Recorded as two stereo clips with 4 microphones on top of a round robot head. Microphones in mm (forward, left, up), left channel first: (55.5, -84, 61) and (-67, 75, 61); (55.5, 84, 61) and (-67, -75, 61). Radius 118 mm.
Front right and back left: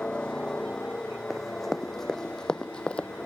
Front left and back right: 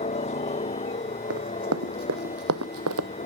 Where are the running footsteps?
140° right; by 3.1 s 135° right.